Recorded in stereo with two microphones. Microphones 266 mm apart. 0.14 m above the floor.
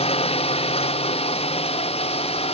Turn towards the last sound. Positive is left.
turn(degrees=20)  # may be behind; listen again after turning